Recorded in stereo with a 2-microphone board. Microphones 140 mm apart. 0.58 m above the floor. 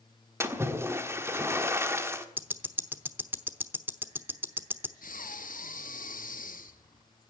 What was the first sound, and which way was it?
A splash, 20° right (ahead or behind).